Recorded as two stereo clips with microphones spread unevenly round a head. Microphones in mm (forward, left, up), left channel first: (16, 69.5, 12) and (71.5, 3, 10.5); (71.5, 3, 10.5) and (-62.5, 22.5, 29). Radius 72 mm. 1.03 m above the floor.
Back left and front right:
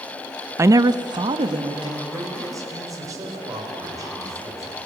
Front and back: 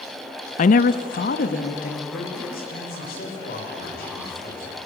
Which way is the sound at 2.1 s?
Straight ahead.